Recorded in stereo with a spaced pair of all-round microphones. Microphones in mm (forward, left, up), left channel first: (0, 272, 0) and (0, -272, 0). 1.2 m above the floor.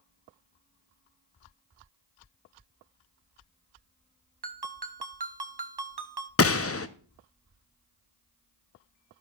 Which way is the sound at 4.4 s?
45° right (ahead or behind).